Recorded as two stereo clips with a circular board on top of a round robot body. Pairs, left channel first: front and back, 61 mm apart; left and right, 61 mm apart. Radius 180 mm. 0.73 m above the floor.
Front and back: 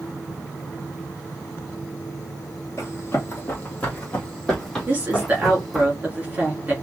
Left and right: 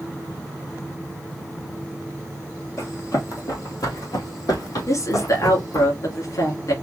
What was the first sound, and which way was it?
Running footsteps, 50° left.